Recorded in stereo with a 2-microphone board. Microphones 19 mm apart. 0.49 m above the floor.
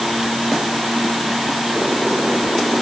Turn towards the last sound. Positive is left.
No sound to turn to.